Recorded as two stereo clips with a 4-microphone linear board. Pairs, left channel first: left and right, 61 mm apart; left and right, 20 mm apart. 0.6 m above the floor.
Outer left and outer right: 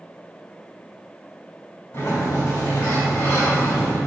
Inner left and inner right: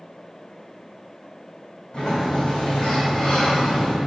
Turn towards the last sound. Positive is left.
turn(degrees=50)  # may be behind; listen again after turning